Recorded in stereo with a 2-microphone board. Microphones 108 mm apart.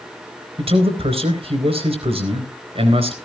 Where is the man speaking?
65° right (ahead or behind), 4 m.